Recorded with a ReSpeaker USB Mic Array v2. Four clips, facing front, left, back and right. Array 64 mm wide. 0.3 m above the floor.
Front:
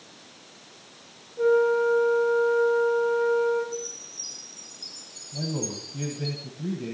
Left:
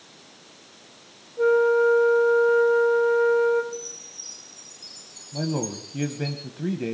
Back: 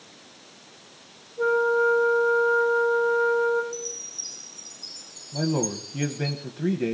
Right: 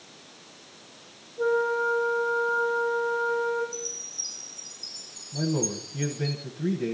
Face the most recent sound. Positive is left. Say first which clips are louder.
# even, back 6 dB
turn(degrees=145)